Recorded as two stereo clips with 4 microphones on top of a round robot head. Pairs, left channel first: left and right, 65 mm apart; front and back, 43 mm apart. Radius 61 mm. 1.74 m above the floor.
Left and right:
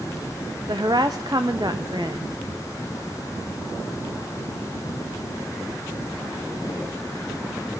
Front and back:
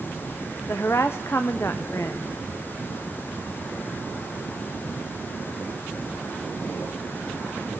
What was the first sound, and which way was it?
A woman speaking, 50° right.